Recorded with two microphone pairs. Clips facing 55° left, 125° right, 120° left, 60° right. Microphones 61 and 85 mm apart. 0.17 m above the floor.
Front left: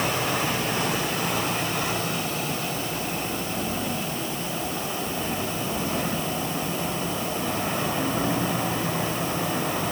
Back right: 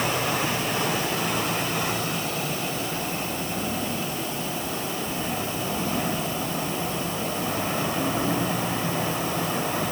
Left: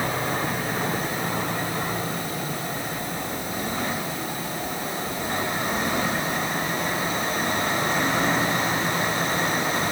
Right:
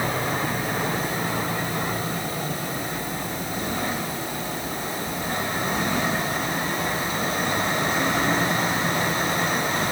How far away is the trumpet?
I don't hear a trumpet.